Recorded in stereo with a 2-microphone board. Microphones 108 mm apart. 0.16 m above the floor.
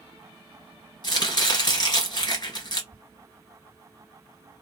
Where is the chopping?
40° left (ahead or behind), 1.4 m.